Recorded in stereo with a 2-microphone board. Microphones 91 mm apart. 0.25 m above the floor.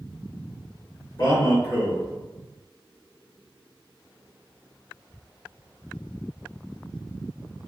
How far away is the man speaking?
About 2.0 m.